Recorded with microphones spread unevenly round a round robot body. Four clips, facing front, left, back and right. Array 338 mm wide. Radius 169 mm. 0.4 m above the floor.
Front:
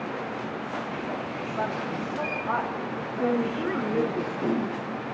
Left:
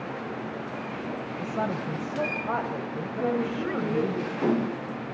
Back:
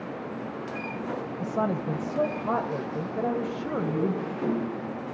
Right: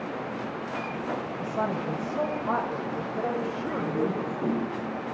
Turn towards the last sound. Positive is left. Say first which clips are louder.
# left 4 dB, front 4 dB
turn(degrees=35)